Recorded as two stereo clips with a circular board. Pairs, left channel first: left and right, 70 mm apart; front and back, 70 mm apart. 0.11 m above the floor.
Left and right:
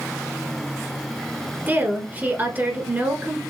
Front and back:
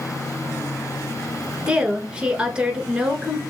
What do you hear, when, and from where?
1.7 s a woman speaking: 120° right, 1.2 m